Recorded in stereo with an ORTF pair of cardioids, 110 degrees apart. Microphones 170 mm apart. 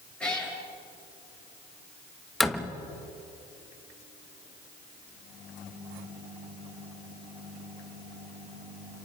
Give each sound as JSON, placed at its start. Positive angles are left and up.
{"t": 0.2, "sound": "a cat meowing", "azimuth_deg": 5, "distance_m": 8.5}
{"t": 2.4, "sound": "a door slam", "azimuth_deg": 0, "distance_m": 1.3}